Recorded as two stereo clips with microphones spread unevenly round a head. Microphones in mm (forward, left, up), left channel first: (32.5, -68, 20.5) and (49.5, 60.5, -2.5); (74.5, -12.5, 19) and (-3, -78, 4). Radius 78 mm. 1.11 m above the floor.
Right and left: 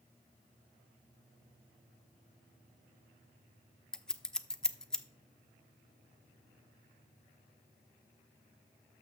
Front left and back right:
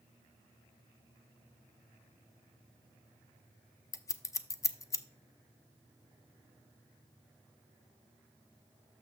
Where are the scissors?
Straight ahead, 0.6 m.